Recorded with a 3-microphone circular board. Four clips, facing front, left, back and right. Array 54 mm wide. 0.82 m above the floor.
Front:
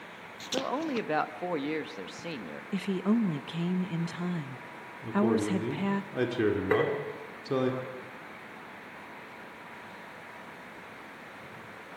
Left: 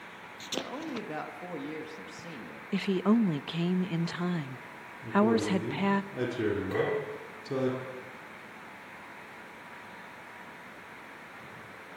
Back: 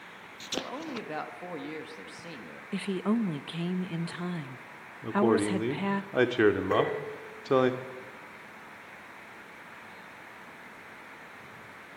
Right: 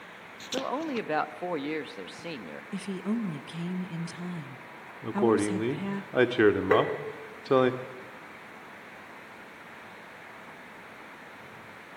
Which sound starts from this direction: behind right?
A man speaking, at 5.0 s.